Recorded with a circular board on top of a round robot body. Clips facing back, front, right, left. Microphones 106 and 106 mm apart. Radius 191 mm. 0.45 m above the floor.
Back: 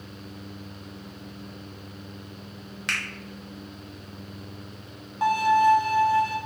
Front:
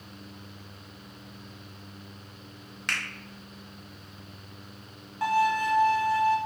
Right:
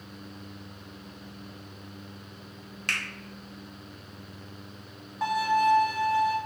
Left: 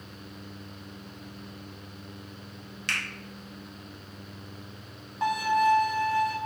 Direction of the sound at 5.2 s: 175° right.